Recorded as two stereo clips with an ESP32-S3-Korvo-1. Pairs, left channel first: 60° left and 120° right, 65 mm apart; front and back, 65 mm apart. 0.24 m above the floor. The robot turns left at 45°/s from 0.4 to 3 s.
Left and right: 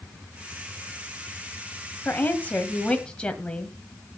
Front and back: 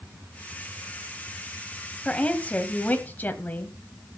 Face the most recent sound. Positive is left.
turn(degrees=5)